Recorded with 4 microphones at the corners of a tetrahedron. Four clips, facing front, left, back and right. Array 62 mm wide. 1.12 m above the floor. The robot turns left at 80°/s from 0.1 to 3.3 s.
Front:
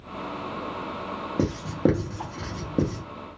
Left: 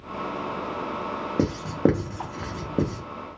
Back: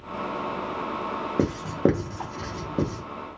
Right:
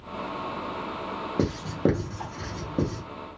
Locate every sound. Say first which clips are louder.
1.4 s writing: left 3 dB, even; 165° left, 0.6 m; by 3.0 s 35° left, 0.6 m